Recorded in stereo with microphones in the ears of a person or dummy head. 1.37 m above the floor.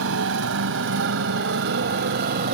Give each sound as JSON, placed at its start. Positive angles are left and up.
{"t": 0.0, "sound": "a motorcycle", "side_deg": -75}